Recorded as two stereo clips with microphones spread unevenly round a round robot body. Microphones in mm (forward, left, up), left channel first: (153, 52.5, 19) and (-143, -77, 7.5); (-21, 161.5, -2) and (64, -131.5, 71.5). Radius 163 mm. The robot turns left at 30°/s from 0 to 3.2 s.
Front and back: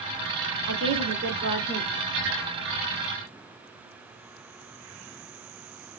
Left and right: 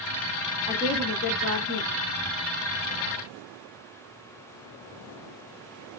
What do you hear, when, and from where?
0.7 s a woman speaking: 165° left, 2 m; by 1.9 s 130° left, 2 m